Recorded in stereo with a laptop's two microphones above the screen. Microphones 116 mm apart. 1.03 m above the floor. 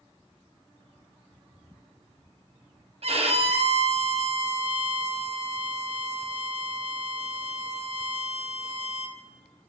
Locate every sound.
3.0 s a violin: 60° right (ahead or behind), 0.7 m